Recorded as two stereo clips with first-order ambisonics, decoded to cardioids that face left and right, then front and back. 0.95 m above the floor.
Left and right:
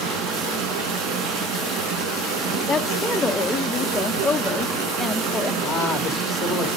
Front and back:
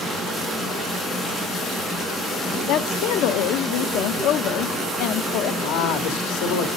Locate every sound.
0.0 s running water: 80° right, 5 m
2.7 s a woman speaking: 10° left, 0.6 m
5.6 s a man speaking: 5° left, 2.5 m